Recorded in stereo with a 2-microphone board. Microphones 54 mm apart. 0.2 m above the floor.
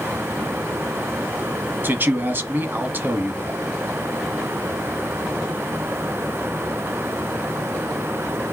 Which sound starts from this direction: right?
A man speaking, at 1.8 s.